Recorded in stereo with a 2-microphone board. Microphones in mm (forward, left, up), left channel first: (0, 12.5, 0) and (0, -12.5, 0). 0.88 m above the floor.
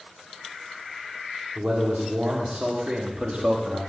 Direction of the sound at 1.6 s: 65° right (ahead or behind).